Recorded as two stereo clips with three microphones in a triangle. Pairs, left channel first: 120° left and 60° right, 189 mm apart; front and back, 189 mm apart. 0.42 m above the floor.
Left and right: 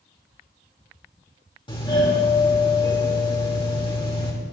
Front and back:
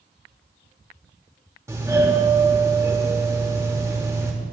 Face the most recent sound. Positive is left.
turn(degrees=130)